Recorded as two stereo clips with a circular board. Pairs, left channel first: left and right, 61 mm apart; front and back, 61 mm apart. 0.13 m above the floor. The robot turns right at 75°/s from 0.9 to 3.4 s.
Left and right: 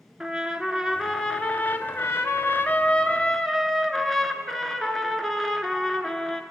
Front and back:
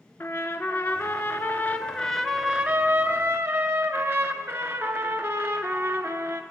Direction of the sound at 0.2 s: 10° right.